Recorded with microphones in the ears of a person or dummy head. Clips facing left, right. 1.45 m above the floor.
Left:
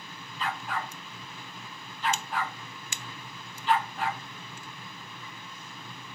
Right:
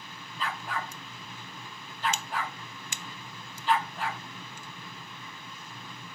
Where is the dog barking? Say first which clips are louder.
Left 1 dB; 35° right (ahead or behind), 3 m.